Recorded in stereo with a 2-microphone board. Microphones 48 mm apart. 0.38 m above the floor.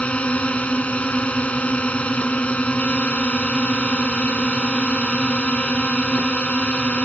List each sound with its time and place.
0.0 s a drone: 30° left (ahead or behind)